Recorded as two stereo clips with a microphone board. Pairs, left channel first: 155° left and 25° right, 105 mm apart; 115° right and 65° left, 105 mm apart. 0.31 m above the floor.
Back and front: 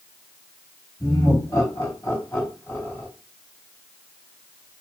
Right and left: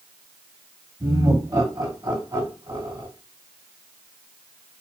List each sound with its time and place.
1.0 s laughter: 115° left, 2.5 m; by 3.1 s 90° left, 3 m